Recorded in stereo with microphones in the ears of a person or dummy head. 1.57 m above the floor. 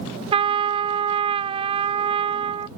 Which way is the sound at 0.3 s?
25° right (ahead or behind).